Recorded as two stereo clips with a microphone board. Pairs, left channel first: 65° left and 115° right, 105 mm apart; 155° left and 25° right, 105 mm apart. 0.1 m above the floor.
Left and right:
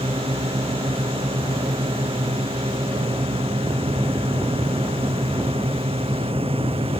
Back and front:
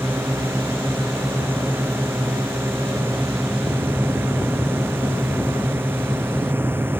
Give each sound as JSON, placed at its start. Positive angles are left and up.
{"t": 0.0, "sound": "a drone", "azimuth_deg": -90}